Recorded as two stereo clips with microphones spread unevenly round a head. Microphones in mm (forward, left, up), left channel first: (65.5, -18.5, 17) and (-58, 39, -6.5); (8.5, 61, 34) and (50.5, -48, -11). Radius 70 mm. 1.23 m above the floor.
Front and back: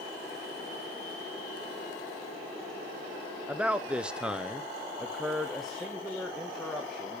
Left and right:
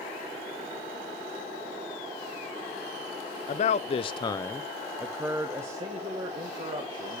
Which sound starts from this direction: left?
A man speaking, at 3.5 s.